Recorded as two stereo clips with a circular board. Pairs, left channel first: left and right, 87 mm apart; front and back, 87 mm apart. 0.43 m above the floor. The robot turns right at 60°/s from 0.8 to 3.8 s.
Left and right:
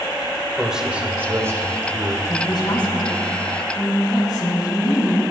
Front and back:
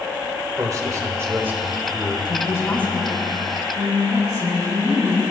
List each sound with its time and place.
0.6 s a man speaking: 165° right, 1.6 m; by 2.1 s 85° right, 1.6 m
2.2 s a woman speaking: 40° left, 3 m; by 5.2 s 135° left, 3 m